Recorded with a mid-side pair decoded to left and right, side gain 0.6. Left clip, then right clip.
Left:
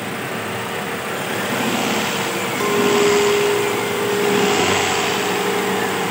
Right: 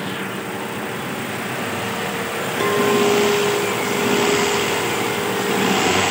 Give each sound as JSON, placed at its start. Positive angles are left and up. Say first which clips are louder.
{"t": 2.6, "sound": "a clink", "louder": "left 1 dB", "azimuth_deg": -5, "distance_m": 3.5}